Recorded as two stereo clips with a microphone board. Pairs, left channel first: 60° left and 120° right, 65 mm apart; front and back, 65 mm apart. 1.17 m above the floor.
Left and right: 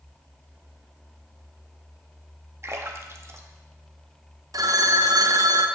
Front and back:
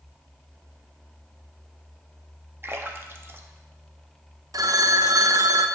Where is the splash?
145° right, 0.7 m.